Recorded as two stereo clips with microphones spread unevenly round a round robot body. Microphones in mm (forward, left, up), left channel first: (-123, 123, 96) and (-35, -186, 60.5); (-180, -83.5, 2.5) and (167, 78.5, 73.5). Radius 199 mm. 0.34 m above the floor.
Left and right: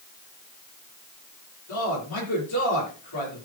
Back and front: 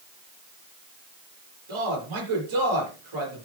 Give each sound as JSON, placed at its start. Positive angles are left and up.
{"t": 1.7, "sound": "a man speaking", "azimuth_deg": 65, "distance_m": 8.0}